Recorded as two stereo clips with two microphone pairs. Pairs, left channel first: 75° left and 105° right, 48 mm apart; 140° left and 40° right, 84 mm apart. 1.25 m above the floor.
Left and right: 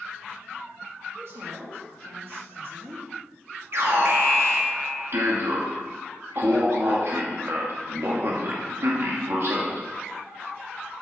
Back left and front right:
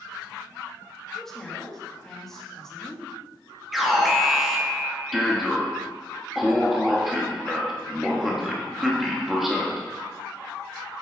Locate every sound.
1.1 s a woman speaking: 135° right, 2.5 m
3.7 s an alarm: 130° right, 1.4 m